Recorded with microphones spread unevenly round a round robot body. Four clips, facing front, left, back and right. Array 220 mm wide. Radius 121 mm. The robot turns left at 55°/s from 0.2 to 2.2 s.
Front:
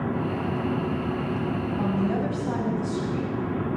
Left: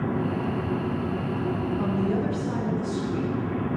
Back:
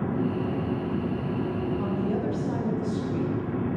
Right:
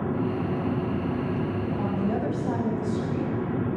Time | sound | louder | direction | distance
1.8 | a woman speaking | left 1 dB, front 2 dB | 15° right | 5.5 m